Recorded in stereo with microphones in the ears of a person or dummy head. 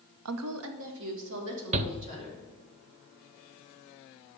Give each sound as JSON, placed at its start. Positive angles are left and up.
{"t": 0.2, "sound": "a woman speaking", "side_deg": -85, "distance_m": 0.6}
{"t": 1.7, "sound": "a shout", "side_deg": -35, "distance_m": 0.5}